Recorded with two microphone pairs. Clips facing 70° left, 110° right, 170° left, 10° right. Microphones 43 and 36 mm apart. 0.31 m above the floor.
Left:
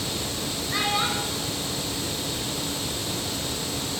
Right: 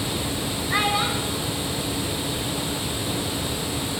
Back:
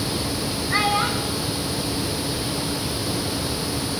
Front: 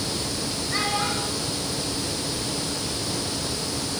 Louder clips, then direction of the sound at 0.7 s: Right 3 dB, back 5 dB; 140° right.